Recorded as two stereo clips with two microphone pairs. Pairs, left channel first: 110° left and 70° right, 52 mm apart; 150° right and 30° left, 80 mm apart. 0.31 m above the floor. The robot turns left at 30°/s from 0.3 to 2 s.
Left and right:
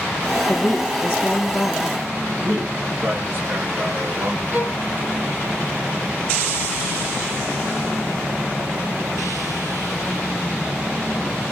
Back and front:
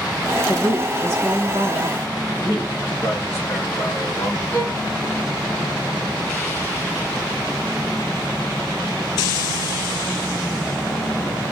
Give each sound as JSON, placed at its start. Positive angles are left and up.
{"t": 0.5, "sound": "a woman speaking", "azimuth_deg": 100, "distance_m": 2.0}
{"t": 2.4, "sound": "a man speaking", "azimuth_deg": -95, "distance_m": 2.5}
{"t": 4.5, "sound": "a violin", "azimuth_deg": -85, "distance_m": 2.5}